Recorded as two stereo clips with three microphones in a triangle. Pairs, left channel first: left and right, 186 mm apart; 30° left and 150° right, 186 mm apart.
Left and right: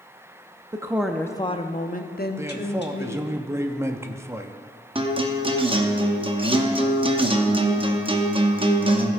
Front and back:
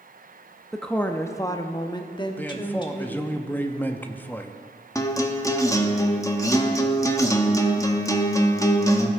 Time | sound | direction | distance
0.7 | a woman speaking | 55° right | 0.5 m
2.4 | a man speaking | 35° right | 0.5 m
5.0 | a guitar | 40° right | 0.7 m